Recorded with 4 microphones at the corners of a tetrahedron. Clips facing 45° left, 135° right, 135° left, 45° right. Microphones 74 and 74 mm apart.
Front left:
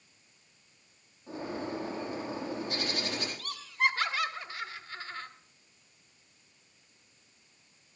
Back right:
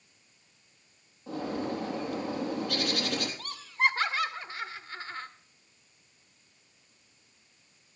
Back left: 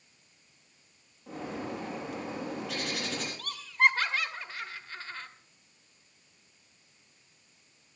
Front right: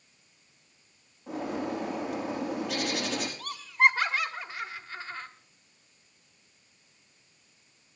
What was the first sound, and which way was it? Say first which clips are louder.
A bird: back right 4 dB, front right 5 dB; 135° right.